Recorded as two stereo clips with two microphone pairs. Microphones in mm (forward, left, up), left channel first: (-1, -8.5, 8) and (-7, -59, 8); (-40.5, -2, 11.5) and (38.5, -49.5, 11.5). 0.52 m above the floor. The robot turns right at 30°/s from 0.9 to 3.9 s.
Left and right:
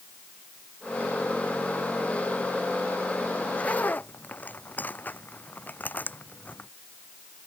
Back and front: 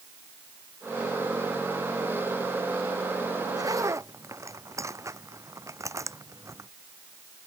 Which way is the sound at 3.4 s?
10° left.